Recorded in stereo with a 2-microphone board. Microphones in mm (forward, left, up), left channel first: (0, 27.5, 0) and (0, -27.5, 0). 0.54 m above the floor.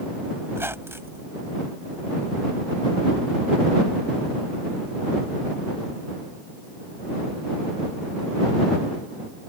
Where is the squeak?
50° right (ahead or behind).